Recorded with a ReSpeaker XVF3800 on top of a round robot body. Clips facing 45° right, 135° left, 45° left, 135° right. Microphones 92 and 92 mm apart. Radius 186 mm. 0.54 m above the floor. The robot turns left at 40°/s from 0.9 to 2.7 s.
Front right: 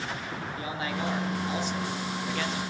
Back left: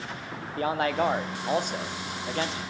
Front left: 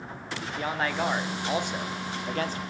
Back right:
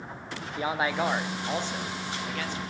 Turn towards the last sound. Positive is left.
turn(degrees=75)